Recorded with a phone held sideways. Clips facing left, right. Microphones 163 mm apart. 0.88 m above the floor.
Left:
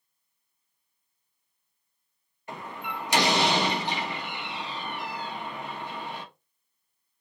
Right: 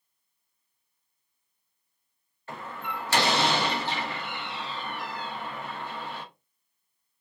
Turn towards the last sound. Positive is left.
turn(degrees=15)  # may be behind; listen again after turning